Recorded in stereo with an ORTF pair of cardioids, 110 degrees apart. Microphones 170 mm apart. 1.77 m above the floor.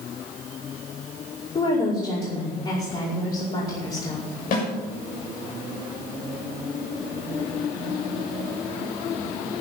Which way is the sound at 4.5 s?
60° left.